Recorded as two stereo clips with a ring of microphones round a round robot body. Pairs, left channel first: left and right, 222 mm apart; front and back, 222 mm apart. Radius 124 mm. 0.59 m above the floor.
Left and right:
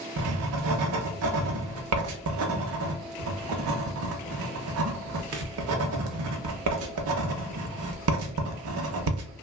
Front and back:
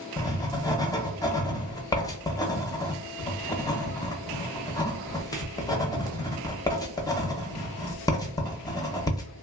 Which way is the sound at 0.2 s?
75° right.